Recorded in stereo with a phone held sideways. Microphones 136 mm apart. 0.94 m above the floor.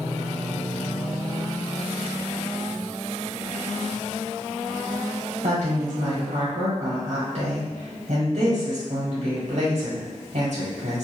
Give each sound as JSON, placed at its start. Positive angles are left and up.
{"t": 5.4, "sound": "a woman speaking", "side_deg": -60, "distance_m": 1.2}